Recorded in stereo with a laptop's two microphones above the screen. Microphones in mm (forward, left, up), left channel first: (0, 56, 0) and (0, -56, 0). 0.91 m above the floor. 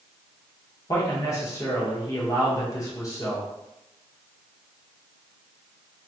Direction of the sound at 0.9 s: 30° left (ahead or behind).